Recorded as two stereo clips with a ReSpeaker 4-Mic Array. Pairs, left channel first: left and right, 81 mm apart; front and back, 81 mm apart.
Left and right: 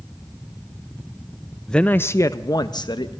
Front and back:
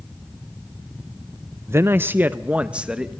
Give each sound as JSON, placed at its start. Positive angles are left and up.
{"t": 1.7, "sound": "a man speaking", "azimuth_deg": 165, "distance_m": 0.6}